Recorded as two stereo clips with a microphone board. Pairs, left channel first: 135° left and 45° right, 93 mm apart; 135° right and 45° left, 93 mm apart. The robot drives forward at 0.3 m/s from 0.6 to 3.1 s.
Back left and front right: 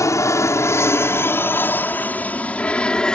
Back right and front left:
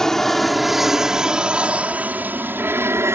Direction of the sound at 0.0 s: 145° left.